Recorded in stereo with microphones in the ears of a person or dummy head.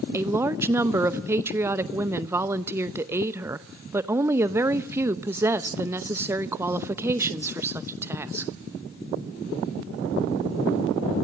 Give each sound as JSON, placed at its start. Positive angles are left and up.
{"t": 0.1, "sound": "a woman speaking", "side_deg": -15, "distance_m": 0.7}